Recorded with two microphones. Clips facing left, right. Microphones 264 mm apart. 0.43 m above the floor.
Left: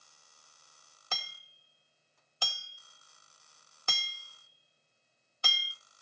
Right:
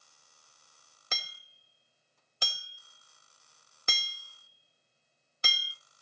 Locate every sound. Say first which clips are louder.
1.1 s hammering: even; 20° right (ahead or behind), 0.7 m